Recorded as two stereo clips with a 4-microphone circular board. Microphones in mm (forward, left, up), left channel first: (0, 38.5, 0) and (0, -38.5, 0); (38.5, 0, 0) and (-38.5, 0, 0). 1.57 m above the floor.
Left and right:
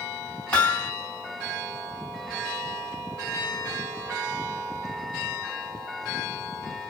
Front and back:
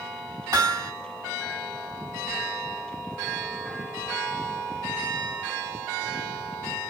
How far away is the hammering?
About 2 m.